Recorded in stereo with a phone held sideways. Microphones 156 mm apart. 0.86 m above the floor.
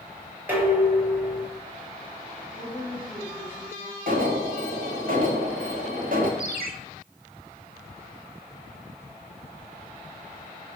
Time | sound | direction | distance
0.5 | dishes clattering | 15° right (ahead or behind) | 3.5 m
2.5 | a woman speaking | 20° right (ahead or behind) | 5.5 m
4.1 | an alarm | 65° right (ahead or behind) | 1.8 m
6.4 | a ringtone | 70° right (ahead or behind) | 1.4 m